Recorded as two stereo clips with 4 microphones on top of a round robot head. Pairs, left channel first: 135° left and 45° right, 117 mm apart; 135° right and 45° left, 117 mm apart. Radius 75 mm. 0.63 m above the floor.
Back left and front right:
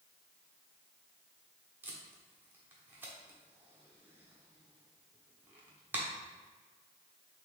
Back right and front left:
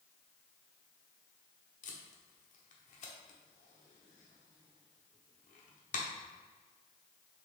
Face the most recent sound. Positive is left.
turn(degrees=-120)